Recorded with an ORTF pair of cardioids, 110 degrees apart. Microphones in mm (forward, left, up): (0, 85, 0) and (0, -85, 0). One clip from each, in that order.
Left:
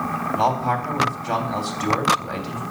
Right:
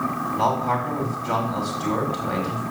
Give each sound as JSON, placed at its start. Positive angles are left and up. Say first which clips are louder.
{"t": 0.4, "sound": "a man speaking", "louder": "left 1 dB", "azimuth_deg": 30, "distance_m": 3.0}